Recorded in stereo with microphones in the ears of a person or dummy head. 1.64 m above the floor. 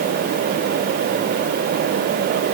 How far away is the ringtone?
No ringtone in this recording.